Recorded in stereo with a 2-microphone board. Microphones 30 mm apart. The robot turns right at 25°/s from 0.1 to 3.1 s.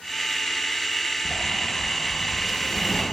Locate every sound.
1.2 s a sliding door: 30° right, 3.5 m; by 3.0 s 15° left, 3.5 m